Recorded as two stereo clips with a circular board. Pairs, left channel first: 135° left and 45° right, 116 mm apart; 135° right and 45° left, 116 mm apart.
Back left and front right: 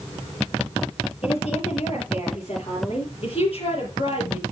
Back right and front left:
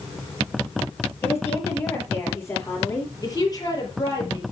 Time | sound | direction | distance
1.2 | a woman speaking | 155° left | 6.5 m
3.2 | a woman speaking | 170° left | 5.5 m